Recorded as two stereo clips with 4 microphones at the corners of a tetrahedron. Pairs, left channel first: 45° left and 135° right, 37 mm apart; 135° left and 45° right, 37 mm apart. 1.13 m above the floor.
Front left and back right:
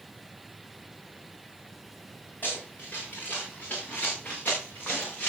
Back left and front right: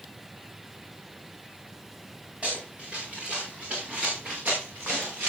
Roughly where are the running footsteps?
Ahead.